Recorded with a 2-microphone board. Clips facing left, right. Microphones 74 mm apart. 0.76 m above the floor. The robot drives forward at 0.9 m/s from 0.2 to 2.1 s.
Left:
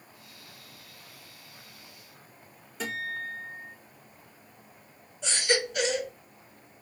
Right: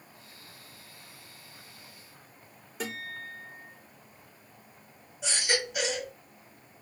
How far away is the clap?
No clap in this recording.